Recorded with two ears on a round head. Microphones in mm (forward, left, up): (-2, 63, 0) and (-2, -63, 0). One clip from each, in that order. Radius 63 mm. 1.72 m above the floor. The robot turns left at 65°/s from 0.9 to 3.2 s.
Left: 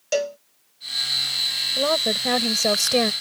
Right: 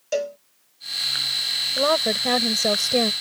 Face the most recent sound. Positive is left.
turn(degrees=125)